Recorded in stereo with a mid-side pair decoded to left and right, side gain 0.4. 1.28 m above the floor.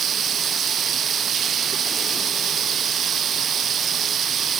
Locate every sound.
0.0 s running water: 60° right